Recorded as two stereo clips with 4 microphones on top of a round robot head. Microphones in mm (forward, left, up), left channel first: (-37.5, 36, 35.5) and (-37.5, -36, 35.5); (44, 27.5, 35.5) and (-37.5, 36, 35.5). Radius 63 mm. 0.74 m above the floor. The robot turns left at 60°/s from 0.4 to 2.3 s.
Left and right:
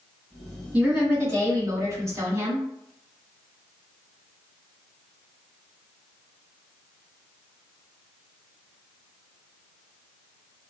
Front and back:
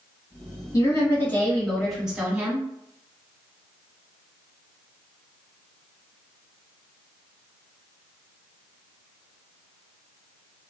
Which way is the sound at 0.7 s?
25° right.